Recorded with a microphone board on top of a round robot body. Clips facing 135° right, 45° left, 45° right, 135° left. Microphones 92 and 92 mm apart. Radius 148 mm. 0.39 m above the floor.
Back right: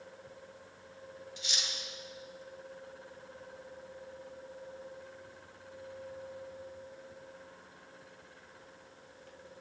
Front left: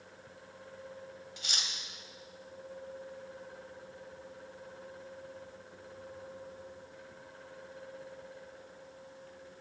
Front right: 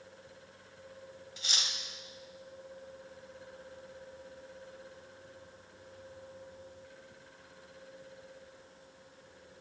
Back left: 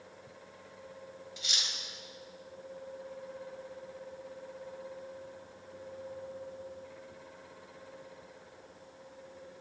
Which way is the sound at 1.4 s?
5° left.